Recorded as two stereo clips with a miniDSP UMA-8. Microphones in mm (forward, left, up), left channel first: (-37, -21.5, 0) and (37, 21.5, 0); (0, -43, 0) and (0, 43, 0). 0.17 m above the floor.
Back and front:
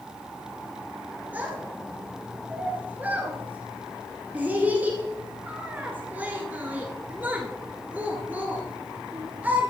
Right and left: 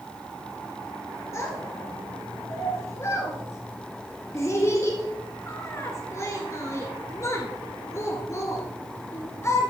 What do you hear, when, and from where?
1.3 s a child speaking: 40° right, 1.8 m